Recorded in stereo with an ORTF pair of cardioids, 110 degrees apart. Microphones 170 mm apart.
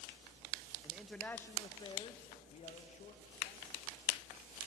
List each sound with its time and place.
0.8 s a man speaking: 10° right, 0.7 m; by 4.2 s 50° left, 2.5 m